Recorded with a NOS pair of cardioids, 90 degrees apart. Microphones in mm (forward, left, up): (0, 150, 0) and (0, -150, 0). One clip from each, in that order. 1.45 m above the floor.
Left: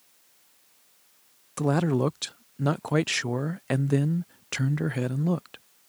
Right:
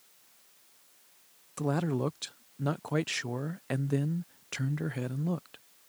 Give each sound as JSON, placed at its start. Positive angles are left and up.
{"t": 1.6, "sound": "a man speaking", "azimuth_deg": 25}